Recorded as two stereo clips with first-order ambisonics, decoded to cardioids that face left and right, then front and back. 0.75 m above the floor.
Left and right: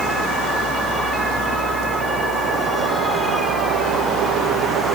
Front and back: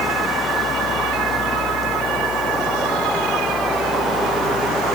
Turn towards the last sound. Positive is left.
No sound to turn to.